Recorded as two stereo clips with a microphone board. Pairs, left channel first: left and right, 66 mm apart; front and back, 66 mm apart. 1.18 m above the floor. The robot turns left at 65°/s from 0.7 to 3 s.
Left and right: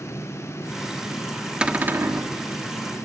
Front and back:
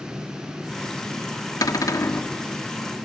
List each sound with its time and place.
1.6 s a cupboard door: 15° right, 1.4 m; by 2.3 s 60° right, 1.4 m